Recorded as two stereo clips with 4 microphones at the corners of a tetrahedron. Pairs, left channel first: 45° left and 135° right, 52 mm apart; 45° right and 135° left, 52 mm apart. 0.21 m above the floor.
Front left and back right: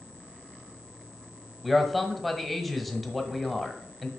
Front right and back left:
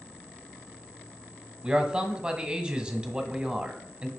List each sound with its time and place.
1.6 s a man speaking: 135° left, 1.0 m